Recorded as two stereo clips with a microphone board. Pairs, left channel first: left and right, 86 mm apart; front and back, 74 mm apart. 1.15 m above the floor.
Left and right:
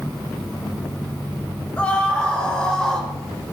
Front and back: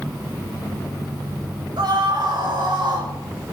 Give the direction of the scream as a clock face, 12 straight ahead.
6 o'clock.